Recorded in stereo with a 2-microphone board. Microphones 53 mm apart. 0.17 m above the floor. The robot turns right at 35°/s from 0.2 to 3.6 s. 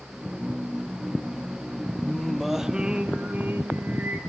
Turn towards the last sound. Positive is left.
turn(degrees=-135)